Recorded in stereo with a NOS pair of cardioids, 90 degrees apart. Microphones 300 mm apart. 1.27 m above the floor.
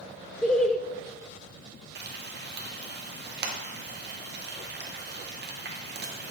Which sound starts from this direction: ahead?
Laughter, at 0.4 s.